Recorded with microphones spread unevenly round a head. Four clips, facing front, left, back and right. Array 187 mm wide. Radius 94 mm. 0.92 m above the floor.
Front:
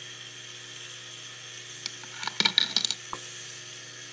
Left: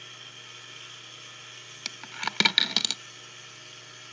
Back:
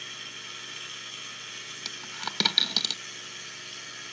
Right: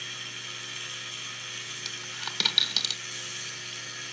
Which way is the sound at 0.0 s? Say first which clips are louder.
Right 6 dB, back 4 dB; 115° right.